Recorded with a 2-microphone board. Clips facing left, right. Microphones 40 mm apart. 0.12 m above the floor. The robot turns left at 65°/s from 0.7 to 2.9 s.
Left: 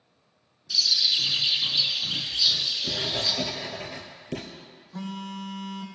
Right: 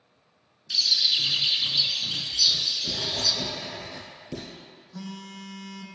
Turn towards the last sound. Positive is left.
turn(degrees=30)  # may be behind; listen again after turning